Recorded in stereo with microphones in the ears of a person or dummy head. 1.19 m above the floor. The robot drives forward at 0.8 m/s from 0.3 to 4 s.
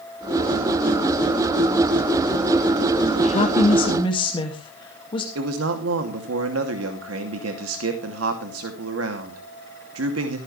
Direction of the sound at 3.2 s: 35° left (ahead or behind).